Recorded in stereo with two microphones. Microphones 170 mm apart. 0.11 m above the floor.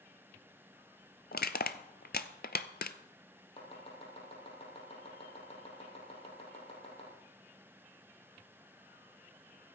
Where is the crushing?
65° left (ahead or behind), 0.6 m.